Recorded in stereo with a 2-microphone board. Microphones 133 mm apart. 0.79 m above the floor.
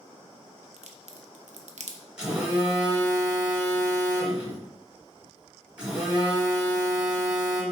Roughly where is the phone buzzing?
Centre.